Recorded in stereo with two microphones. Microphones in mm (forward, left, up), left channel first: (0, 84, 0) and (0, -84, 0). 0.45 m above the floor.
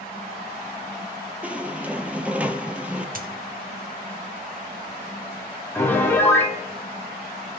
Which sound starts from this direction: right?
A dropped coin, at 3.1 s.